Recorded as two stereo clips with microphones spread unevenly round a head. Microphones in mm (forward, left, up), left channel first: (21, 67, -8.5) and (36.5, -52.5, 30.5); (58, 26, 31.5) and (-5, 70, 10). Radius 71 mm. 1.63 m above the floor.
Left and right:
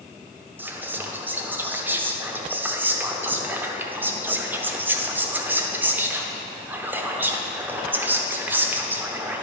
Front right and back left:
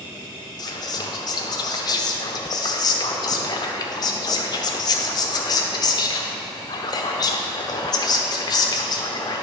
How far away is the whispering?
About 0.9 m.